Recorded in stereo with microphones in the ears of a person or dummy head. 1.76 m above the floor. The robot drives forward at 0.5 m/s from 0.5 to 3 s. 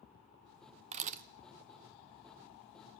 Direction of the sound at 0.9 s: 35° right (ahead or behind).